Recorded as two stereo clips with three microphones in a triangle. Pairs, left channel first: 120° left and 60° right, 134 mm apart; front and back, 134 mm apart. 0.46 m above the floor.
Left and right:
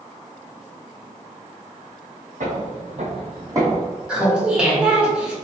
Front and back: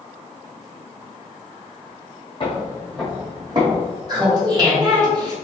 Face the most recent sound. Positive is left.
turn(degrees=-140)